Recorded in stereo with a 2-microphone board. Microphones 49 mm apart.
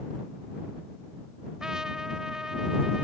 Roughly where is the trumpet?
Centre.